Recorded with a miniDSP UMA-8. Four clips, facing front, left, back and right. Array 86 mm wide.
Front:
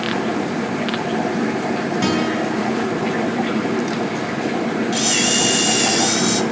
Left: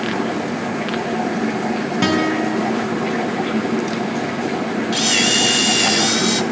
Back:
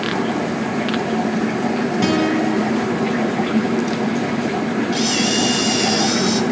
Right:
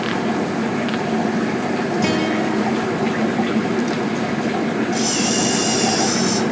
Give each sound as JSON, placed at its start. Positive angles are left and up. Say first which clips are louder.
{"t": 2.0, "sound": "a guitar", "louder": "left 4 dB, back 3 dB", "azimuth_deg": 90, "distance_m": 8.5}
{"t": 4.9, "sound": "a camera shutter", "louder": "even, back 1 dB", "azimuth_deg": 75, "distance_m": 2.0}